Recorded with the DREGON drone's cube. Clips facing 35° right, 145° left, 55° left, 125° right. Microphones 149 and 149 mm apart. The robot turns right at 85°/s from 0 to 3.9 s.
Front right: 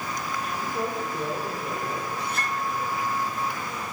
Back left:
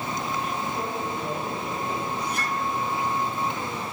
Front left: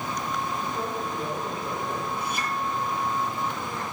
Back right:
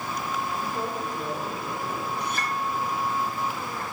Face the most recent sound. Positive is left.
turn(degrees=115)